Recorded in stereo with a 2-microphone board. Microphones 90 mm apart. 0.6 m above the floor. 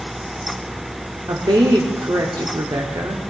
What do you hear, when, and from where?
1.3 s a woman speaking: 50° right (ahead or behind), 1.3 m